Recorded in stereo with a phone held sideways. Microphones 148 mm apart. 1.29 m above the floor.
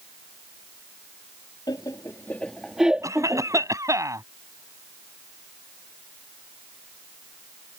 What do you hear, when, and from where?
1.7 s laughter: 30° left (ahead or behind); by 3.7 s 25° right (ahead or behind)
3.0 s a cough: 20° right (ahead or behind)